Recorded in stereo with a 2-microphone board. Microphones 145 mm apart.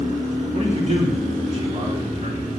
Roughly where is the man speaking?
Right.